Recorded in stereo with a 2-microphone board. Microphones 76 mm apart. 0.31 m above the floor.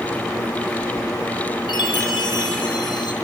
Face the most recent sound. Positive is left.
turn(degrees=70)  # may be behind; listen again after turning